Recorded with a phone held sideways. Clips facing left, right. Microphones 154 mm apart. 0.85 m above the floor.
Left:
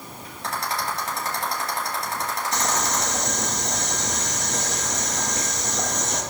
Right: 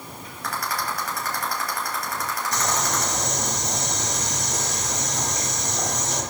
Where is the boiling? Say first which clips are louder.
Even; 15° right (ahead or behind), 5.5 m.